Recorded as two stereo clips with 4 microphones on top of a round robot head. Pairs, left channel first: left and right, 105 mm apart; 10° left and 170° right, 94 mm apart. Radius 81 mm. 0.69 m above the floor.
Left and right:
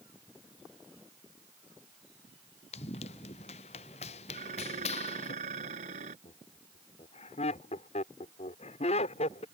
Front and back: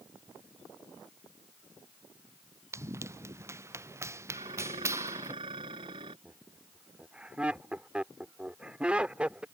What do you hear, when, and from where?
2.7 s running footsteps: 130° left
4.3 s dishes clattering: 120° right
6.2 s laughter: 110° left